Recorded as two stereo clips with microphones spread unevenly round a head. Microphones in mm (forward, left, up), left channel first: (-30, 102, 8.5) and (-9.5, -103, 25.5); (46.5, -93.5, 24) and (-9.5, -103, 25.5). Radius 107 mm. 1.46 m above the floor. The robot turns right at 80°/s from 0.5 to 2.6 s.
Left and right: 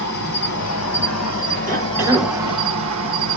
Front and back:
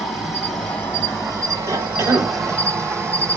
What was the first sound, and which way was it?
An insect, 50° left.